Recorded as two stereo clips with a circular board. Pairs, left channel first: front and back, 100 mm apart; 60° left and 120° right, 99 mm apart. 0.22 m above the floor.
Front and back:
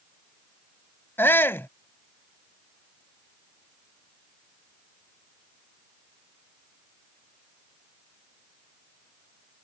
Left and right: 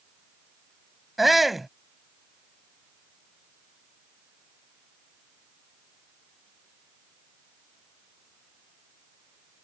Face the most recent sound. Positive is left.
turn(degrees=-35)